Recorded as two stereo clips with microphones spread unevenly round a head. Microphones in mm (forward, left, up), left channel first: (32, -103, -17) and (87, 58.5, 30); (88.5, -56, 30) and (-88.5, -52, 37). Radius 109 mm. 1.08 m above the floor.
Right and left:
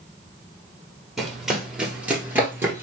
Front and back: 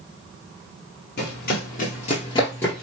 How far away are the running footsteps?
About 1.6 m.